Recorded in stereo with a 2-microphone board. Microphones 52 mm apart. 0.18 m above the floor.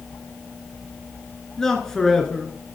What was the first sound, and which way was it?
A man speaking, 10° left (ahead or behind).